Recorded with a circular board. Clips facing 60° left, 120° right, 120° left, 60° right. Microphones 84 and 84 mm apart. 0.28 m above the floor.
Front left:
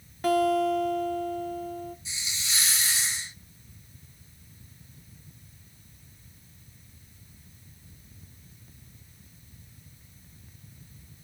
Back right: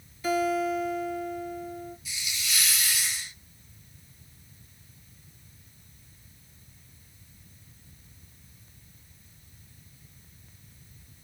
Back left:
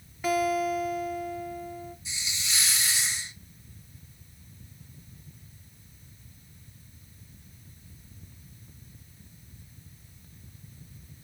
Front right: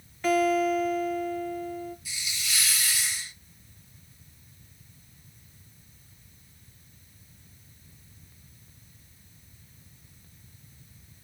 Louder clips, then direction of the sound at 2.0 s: Back right 1 dB, even; 85° left.